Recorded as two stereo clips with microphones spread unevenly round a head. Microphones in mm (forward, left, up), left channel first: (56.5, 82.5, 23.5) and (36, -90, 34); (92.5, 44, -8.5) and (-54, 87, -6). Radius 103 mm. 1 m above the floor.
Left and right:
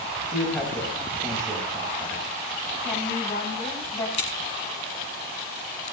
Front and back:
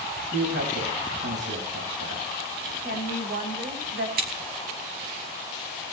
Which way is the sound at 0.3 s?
165° left.